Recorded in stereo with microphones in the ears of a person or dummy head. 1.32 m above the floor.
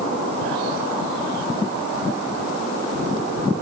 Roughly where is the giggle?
No giggle in this recording.